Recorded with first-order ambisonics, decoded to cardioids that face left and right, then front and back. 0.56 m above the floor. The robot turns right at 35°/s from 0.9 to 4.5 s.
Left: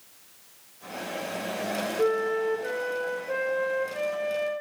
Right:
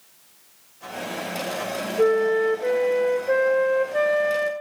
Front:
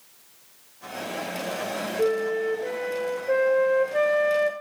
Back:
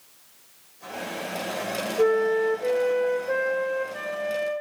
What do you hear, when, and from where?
2.0 s a flute: 130° right, 1.0 m; by 4.5 s 40° right, 1.0 m